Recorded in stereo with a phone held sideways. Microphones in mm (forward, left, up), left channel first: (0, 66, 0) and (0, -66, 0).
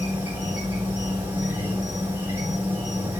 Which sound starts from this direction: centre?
An insect, at 0.0 s.